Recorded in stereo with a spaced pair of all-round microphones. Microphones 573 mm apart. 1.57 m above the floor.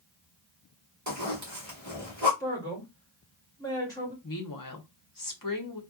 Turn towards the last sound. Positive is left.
turn(degrees=35)  # may be behind; listen again after turning